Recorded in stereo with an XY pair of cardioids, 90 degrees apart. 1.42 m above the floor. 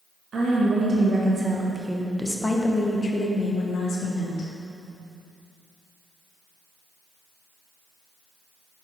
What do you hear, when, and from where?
0.3 s a woman speaking: 50° right, 2.0 m; by 4.5 s 70° left, 2 m